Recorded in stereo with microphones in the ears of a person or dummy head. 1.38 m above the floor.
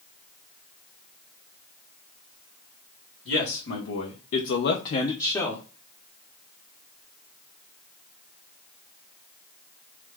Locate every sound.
3.2 s a man speaking: 60° left (ahead or behind), 1.2 m; by 5.6 s 5° left (ahead or behind), 0.9 m